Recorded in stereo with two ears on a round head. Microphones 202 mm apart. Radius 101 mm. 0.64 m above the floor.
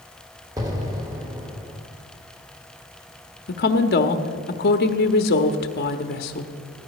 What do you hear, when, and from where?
0.6 s an explosion: 15° right (ahead or behind), 1.5 m
3.5 s a woman speaking: 45° left (ahead or behind), 1.0 m